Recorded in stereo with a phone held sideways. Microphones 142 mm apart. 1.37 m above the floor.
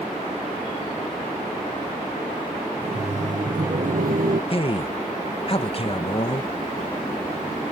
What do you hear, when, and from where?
2.8 s laughter: 40° right (ahead or behind); by 4.4 s 75° right (ahead or behind)
4.5 s a man speaking: 40° left (ahead or behind)